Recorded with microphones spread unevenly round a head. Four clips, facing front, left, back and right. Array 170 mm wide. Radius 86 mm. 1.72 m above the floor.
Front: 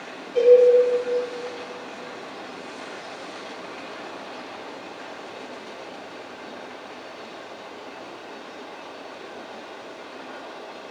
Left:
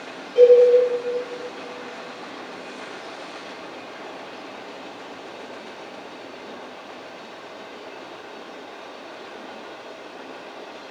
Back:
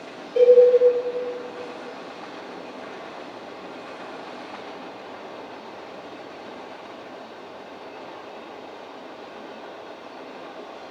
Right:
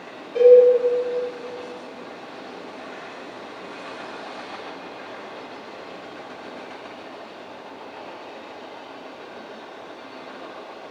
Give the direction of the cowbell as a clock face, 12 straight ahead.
2 o'clock.